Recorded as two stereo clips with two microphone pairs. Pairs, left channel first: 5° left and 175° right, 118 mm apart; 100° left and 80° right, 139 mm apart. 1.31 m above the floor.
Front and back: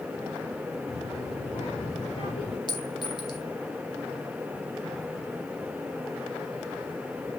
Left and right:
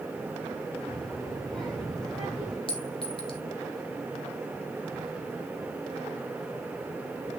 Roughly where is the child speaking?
Ahead.